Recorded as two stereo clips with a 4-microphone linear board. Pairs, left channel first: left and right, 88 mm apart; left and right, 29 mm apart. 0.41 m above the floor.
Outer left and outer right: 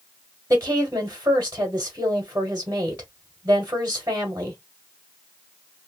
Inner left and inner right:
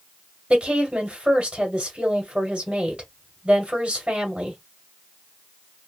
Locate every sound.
0.5 s a woman speaking: 30° right (ahead or behind), 1.3 m